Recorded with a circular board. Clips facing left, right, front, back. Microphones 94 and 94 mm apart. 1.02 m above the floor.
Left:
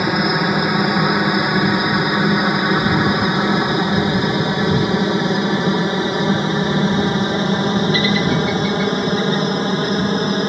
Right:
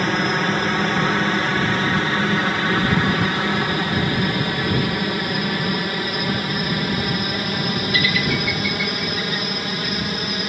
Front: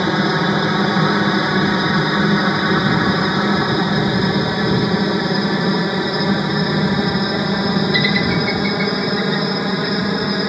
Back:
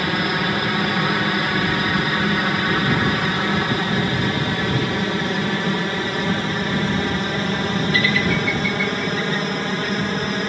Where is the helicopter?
30° left; by 10.5 s 70° left.